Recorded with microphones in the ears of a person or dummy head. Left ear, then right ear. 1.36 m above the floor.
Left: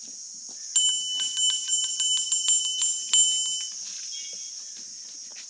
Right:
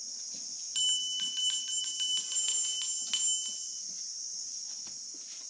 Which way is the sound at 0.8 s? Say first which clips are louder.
Left 5 dB; 20° left (ahead or behind).